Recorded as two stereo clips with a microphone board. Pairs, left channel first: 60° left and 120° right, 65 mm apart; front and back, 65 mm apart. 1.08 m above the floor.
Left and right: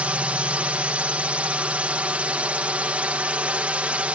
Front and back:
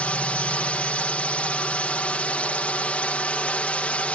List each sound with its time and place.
0.0 s a drone: 60° right